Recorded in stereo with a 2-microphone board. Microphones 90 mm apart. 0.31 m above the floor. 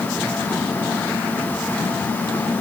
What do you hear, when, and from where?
Only background noise.